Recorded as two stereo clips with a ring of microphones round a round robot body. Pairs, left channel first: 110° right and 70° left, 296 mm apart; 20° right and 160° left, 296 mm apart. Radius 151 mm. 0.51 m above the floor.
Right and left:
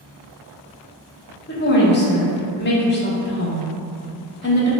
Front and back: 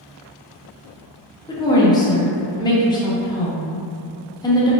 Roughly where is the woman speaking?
Right.